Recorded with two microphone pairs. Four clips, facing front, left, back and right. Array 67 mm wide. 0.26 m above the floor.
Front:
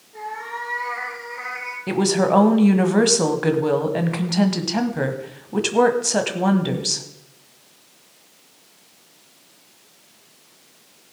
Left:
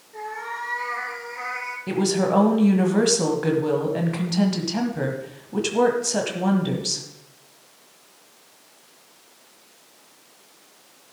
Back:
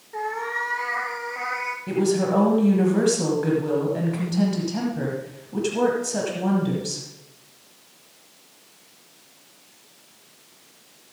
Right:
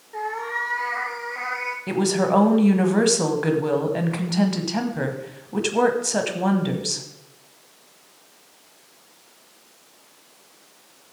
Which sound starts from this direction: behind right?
A cat meowing, at 0.1 s.